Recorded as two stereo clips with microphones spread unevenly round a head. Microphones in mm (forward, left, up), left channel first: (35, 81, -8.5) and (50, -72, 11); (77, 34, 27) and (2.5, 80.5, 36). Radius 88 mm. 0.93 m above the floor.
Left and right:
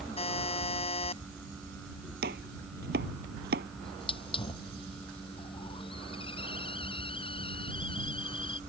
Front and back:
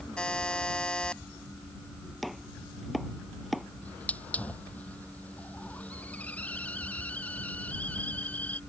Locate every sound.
0.2 s a buzzer: 45° left
2.2 s chopping: 125° right
3.8 s a hiss: 40° left